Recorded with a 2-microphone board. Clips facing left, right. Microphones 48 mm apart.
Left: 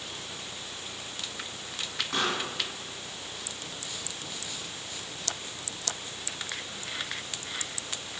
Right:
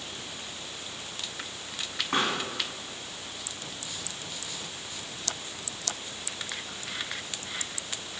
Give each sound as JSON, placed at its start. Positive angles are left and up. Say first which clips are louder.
{"t": 2.1, "sound": "a pop", "louder": "right 2 dB", "side_deg": -25, "distance_m": 2.0}